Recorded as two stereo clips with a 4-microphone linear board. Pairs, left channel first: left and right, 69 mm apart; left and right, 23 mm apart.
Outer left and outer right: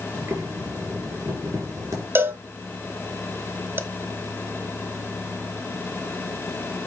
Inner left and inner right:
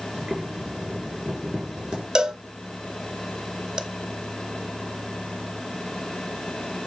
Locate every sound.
0.1 s boiling: 50° right (ahead or behind), 3 m
2.1 s a cowbell: 35° right (ahead or behind), 0.8 m